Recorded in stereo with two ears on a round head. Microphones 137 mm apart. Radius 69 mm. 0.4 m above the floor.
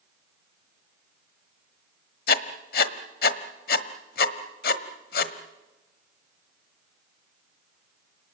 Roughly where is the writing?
Left.